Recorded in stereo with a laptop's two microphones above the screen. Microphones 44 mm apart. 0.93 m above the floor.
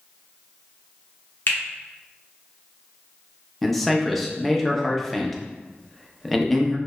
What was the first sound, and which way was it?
A finger snap, 60° left (ahead or behind).